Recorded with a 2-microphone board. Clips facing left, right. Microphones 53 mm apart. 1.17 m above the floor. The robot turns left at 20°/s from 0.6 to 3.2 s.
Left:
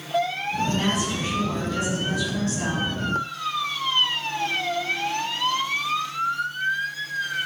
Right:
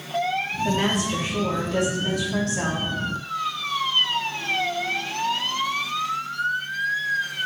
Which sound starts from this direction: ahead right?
A woman speaking, at 0.6 s.